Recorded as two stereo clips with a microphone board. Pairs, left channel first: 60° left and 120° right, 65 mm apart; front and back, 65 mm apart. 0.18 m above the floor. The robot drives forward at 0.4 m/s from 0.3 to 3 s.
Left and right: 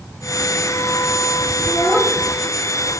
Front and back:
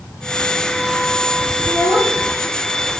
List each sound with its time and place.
1.6 s a child speaking: 170° left, 4 m